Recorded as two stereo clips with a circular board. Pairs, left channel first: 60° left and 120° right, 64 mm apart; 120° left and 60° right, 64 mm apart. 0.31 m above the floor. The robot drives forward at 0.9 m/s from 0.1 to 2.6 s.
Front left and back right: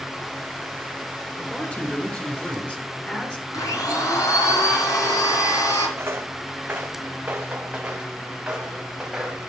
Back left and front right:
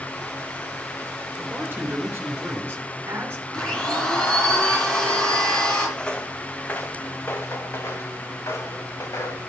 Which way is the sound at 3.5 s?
45° left.